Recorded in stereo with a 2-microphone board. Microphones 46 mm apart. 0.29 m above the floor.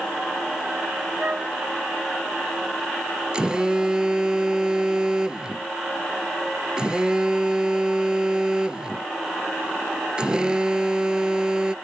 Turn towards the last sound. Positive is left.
turn(degrees=-25)  # may be behind; listen again after turning